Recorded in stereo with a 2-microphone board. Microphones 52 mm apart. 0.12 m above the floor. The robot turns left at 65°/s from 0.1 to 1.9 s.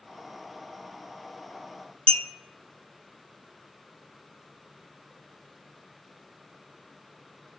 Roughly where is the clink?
Left.